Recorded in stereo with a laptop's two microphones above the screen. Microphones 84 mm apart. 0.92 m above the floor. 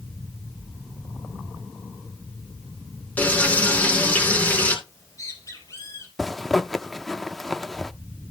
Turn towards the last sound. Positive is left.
turn(degrees=5)  # may be behind; listen again after turning